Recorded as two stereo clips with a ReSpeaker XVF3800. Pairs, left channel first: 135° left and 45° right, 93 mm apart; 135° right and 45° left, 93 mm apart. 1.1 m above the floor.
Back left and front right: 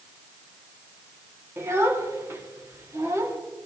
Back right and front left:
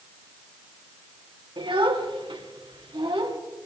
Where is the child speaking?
15° left, 1.6 m.